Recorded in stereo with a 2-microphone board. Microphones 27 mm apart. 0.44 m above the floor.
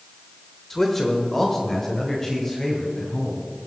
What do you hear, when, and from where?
0.7 s a man speaking: 10° left (ahead or behind), 1.1 m; by 3.5 s 20° left (ahead or behind), 2.5 m